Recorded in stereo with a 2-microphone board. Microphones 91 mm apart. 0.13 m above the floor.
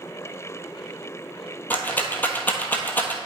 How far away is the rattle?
About 1.0 m.